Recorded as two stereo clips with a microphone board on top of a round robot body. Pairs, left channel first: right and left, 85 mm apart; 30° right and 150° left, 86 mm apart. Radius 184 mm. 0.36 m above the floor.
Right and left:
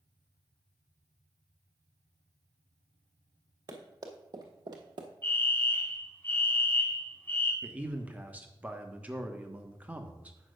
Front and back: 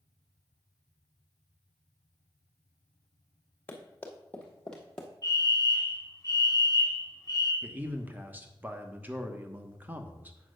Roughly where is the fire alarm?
Ahead right.